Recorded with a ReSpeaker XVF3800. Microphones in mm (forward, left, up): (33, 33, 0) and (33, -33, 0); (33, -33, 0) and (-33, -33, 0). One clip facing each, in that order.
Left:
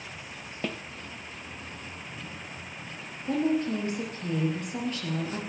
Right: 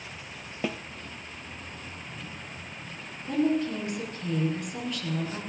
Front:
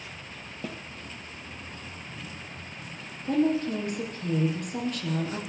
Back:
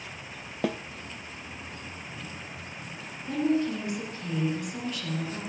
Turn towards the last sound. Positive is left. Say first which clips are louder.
# even, front 1 dB
turn(degrees=35)